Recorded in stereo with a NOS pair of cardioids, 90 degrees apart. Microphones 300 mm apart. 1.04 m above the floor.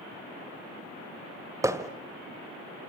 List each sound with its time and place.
1.6 s hammering: 10° right, 2 m